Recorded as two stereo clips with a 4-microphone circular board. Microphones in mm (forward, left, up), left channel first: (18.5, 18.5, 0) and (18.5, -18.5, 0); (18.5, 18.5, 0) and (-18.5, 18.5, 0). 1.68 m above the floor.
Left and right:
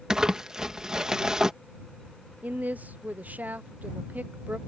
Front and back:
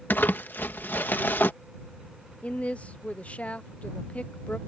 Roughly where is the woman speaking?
Ahead right.